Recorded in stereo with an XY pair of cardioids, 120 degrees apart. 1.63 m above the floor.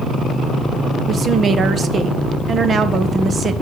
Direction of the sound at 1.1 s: 35° right.